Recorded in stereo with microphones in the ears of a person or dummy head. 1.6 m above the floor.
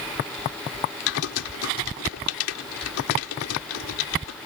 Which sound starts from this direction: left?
Typing on a keyboard, at 1.1 s.